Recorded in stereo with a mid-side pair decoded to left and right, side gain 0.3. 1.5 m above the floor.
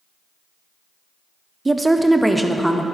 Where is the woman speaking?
30° right, 0.6 m; by 2.9 s 5° left, 1.0 m.